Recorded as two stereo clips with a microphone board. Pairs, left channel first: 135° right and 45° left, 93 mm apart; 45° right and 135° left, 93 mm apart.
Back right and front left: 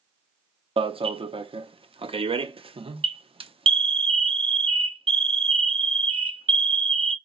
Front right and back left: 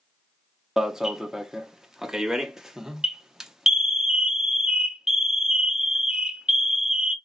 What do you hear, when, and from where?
0.8 s an alarm: 50° left, 0.5 m